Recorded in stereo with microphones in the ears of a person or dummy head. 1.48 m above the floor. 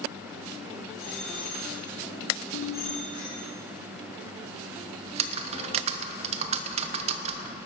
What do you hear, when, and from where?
1.0 s a bicycle bell: 40° right (ahead or behind), 4.5 m
2.5 s a ringtone: 75° left (ahead or behind), 1.1 m
5.0 s typing on a keyboard: 35° right (ahead or behind), 0.9 m